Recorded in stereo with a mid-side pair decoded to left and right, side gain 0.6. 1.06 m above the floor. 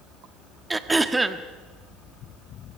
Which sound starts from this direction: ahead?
Throat clearing, at 0.7 s.